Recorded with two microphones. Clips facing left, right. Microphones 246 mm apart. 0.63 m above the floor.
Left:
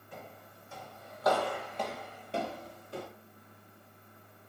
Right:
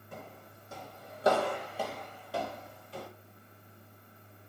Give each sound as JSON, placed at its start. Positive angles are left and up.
{"t": 0.1, "sound": "footsteps", "side_deg": -55, "distance_m": 1.8}